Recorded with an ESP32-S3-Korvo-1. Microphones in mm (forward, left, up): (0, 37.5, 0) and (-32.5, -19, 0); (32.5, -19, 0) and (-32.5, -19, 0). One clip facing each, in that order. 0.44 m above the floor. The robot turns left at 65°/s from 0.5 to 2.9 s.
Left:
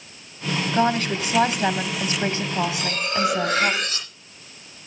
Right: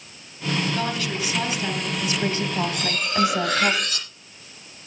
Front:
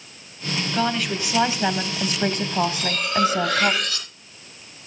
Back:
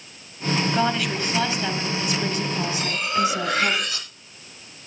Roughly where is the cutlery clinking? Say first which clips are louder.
Right 1 dB, even; behind left.